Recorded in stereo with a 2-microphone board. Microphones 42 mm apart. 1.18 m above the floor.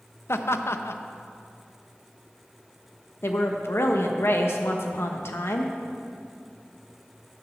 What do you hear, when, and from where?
0.3 s laughter: 80° left, 0.7 m
3.2 s a woman speaking: 80° left, 1.2 m